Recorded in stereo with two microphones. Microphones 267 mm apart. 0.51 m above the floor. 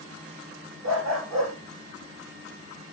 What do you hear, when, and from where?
0.8 s a dog barking: 85° right, 8 m